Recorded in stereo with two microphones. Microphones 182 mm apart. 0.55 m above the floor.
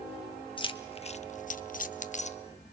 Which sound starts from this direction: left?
Keys jangling, at 0.6 s.